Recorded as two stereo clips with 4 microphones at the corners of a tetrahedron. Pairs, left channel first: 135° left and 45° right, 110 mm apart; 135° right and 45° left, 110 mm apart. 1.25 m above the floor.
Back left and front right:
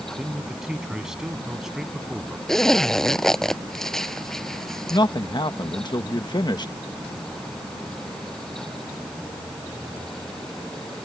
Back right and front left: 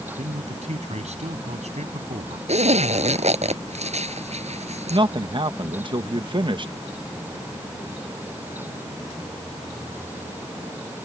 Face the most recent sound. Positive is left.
turn(degrees=85)